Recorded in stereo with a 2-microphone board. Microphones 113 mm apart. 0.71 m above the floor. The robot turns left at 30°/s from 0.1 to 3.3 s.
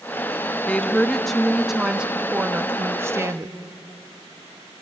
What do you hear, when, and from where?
0.7 s a woman speaking: 25° left, 0.9 m; by 3.5 s 55° right, 0.9 m